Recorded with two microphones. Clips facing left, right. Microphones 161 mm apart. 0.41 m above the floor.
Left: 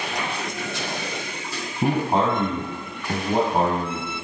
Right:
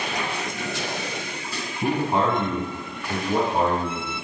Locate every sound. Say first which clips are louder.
1.8 s a man speaking: left 1 dB; 30° left (ahead or behind), 2.5 m; by 4.1 s 55° left (ahead or behind), 3.5 m